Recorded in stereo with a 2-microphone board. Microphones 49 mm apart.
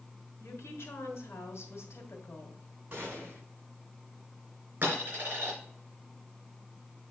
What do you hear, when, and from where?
0.4 s a woman speaking: 70° left (ahead or behind), 2.5 m
2.9 s a gunshot: 35° right (ahead or behind), 4 m
4.8 s a dropped coin: 45° right (ahead or behind), 3.5 m